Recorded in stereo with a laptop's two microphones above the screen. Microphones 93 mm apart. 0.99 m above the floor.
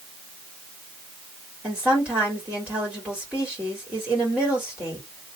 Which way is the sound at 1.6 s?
15° right (ahead or behind).